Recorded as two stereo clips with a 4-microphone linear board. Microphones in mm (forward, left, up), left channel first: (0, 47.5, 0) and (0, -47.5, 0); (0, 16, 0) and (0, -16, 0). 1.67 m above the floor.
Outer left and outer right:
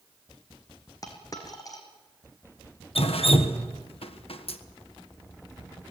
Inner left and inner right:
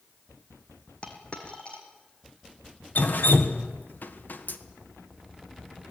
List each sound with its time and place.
1.0 s a dropped coin: 40° left (ahead or behind), 3.5 m
3.0 s dripping: 80° left, 1.4 m